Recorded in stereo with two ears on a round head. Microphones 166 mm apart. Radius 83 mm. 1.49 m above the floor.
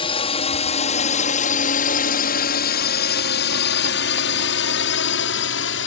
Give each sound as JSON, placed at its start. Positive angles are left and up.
{"t": 0.0, "sound": "a drone", "side_deg": 30}